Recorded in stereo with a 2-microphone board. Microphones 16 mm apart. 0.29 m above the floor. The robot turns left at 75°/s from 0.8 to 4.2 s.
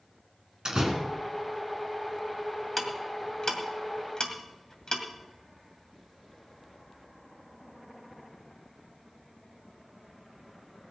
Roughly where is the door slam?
Right.